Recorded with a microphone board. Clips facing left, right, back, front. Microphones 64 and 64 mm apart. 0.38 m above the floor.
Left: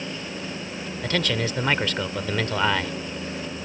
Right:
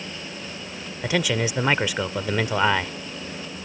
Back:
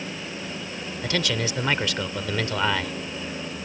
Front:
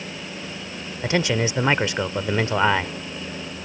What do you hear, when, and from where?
1.0 s a man speaking: 25° right